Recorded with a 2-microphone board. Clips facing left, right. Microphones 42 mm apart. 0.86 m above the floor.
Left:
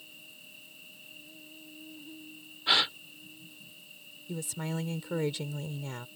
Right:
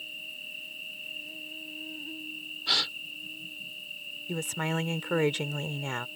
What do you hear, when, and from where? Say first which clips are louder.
0.0 s an insect: right 11 dB; 55° right (ahead or behind)
2.7 s a gasp: left 3 dB; 25° left (ahead or behind)
4.3 s a woman speaking: right 5 dB; 55° right (ahead or behind)